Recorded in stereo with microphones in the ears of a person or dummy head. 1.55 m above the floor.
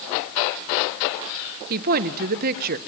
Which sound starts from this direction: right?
A woman speaking, at 1.7 s.